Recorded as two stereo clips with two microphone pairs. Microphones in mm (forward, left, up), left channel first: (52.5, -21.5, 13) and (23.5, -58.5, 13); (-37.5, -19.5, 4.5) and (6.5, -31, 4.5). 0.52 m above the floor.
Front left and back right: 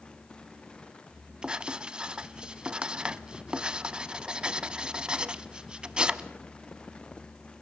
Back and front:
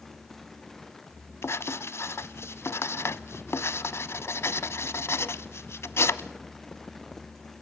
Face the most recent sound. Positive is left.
turn(degrees=165)